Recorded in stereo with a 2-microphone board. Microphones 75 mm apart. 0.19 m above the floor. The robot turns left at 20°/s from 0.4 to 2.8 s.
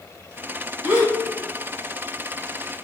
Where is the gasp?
25° right (ahead or behind), 1.5 m.